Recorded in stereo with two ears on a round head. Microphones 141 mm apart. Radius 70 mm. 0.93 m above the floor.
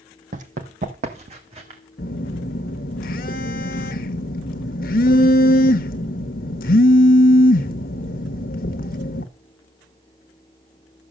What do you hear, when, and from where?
0.3 s running footsteps: 50° right (ahead or behind), 1.4 m; by 1.8 s 35° right (ahead or behind), 2.5 m
2.0 s a phone buzzing: 55° left (ahead or behind), 1.2 m